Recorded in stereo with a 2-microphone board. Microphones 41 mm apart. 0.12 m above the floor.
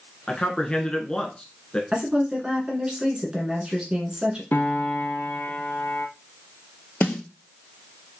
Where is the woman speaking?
20° right (ahead or behind), 1.3 m.